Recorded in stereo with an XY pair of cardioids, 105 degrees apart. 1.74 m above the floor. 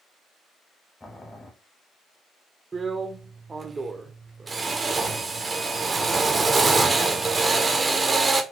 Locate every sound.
1.0 s boiling: 20° left, 0.8 m
2.7 s a drill: 30° right, 0.6 m